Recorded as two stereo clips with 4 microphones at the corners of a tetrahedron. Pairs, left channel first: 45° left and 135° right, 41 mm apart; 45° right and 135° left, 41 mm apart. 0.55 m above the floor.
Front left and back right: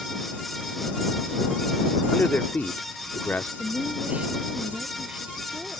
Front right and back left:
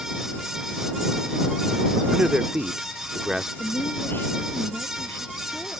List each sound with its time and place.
2.1 s a man speaking: 75° left
3.6 s a woman speaking: 75° right